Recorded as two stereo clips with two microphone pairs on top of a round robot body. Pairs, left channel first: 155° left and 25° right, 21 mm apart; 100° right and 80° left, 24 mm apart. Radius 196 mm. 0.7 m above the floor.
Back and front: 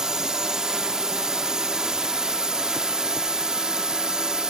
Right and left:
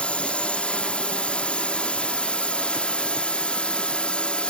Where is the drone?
75° right; by 4.5 s 65° right.